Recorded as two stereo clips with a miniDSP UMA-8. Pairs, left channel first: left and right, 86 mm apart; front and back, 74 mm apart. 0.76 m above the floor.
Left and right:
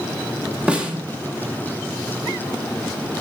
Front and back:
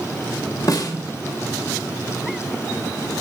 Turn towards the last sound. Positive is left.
turn(degrees=-15)